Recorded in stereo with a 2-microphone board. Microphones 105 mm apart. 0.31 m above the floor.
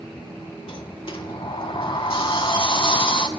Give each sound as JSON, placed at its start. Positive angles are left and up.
{"t": 0.7, "sound": "a sliding door", "side_deg": 50, "distance_m": 0.6}